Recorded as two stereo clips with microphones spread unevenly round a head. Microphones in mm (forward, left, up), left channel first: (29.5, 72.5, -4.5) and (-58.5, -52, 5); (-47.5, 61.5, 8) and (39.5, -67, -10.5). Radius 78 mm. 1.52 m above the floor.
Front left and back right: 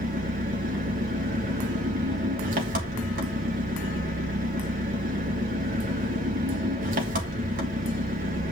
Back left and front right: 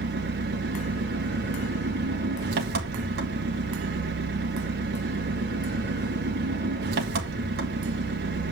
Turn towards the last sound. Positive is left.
turn(degrees=-85)